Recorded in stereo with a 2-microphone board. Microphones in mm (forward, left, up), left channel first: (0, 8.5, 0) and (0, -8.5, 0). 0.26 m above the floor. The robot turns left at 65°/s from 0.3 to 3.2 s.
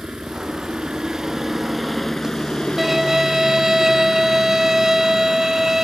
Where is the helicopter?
80° right; by 5.8 s 90° left.